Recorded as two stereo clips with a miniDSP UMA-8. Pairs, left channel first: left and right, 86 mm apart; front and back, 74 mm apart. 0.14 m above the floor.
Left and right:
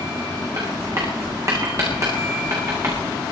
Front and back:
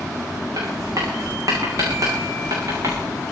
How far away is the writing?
About 7 m.